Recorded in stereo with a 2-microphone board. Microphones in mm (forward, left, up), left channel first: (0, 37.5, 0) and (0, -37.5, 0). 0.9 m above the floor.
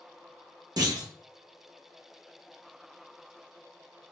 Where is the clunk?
60° right (ahead or behind), 0.7 m.